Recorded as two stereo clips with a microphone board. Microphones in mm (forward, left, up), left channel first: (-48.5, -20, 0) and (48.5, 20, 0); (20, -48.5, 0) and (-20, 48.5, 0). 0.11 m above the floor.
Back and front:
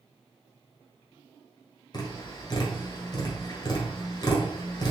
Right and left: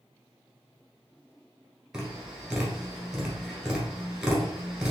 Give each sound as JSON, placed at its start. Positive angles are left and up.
{"t": 1.9, "sound": "tapping", "azimuth_deg": -165, "distance_m": 1.4}